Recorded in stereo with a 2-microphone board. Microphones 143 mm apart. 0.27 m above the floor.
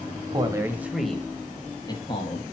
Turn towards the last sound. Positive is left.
turn(degrees=40)  # may be behind; listen again after turning